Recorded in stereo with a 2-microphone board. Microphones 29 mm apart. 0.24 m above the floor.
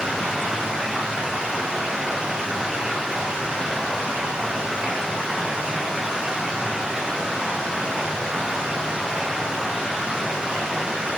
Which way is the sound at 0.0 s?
25° right (ahead or behind).